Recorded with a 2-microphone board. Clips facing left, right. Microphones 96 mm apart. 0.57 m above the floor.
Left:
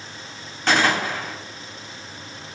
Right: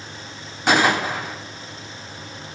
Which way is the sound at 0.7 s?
15° right (ahead or behind).